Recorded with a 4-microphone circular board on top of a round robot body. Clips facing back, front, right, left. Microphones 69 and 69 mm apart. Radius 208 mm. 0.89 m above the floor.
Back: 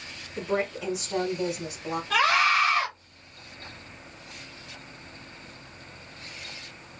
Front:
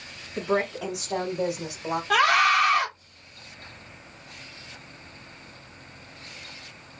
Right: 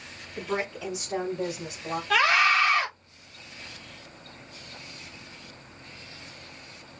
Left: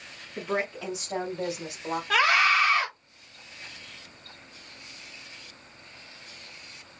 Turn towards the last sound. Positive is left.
turn(degrees=20)